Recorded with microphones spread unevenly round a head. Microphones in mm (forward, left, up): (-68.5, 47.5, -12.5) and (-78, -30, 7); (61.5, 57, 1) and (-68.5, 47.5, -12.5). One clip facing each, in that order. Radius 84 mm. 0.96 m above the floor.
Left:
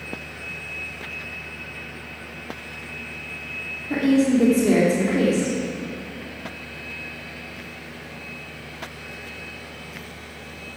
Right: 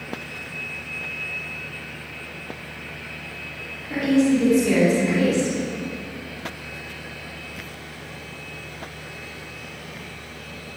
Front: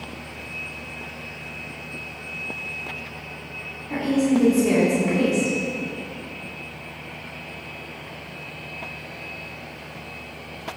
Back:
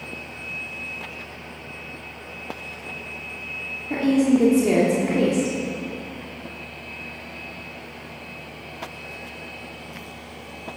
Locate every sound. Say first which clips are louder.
3.9 s a woman speaking: even, back 2 dB; 130° left, 3 m